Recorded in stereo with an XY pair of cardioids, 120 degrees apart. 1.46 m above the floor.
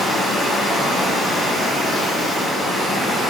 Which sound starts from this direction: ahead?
Running water, at 0.0 s.